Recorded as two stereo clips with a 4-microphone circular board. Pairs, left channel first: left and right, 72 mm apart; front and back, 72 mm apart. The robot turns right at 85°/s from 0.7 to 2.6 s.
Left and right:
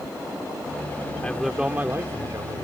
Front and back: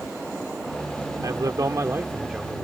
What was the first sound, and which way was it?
A man speaking, 165° left.